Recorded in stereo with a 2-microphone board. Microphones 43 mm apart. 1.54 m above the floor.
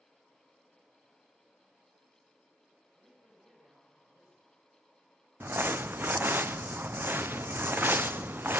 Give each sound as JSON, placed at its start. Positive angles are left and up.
{"t": 3.0, "sound": "a man speaking", "side_deg": -45, "distance_m": 8.5}
{"t": 5.4, "sound": "crumpling", "side_deg": -55, "distance_m": 0.5}